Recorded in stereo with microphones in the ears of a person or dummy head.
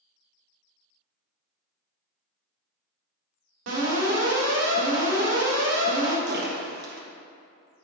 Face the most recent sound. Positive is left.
turn(degrees=-55)  # may be behind; listen again after turning